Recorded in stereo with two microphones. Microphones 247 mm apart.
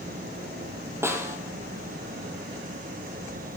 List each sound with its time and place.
1.0 s a snare drum: 10° right (ahead or behind), 1.6 m